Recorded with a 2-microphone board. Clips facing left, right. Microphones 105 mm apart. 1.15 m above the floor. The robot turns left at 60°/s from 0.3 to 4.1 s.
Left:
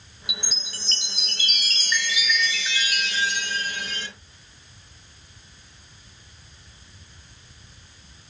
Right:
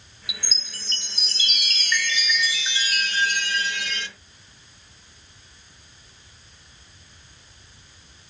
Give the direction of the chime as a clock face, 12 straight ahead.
8 o'clock.